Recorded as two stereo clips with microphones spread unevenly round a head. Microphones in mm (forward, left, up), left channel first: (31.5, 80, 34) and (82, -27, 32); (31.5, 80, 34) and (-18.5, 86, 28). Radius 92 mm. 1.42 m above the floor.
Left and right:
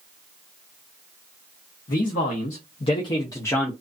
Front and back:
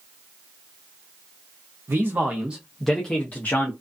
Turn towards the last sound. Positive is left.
turn(degrees=40)